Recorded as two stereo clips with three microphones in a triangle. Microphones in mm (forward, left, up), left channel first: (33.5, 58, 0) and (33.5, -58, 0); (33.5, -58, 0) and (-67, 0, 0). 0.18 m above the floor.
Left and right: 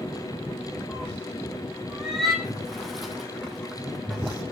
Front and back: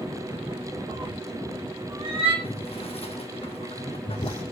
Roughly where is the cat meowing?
Behind.